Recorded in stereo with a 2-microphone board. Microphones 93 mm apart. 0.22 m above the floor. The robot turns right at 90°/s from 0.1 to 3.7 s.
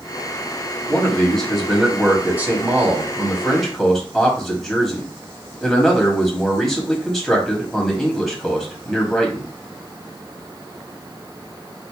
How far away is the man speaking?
About 1.0 m.